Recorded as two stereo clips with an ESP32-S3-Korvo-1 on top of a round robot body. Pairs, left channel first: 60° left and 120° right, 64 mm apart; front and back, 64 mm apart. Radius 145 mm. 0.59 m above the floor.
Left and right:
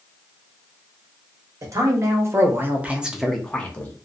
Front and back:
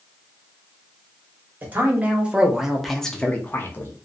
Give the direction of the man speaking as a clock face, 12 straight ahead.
4 o'clock.